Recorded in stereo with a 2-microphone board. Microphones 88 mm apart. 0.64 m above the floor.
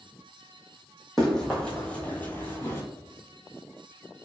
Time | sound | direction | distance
1.2 | running footsteps | 5° left (ahead or behind) | 1.1 m